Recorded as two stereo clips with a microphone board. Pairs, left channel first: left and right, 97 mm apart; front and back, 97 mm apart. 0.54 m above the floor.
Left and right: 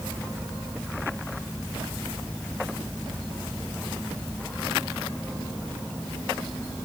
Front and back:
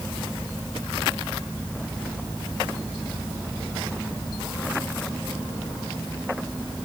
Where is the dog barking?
I don't hear a dog barking.